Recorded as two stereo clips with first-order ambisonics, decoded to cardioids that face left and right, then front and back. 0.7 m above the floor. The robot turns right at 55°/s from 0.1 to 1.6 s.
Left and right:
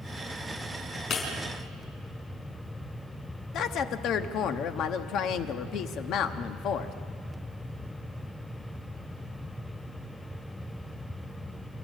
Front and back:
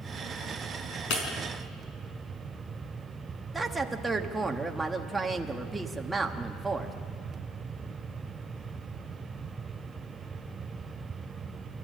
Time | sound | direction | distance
1.1 | breaking glass | 30° left | 4.5 m
3.5 | a woman speaking | 105° left | 1.1 m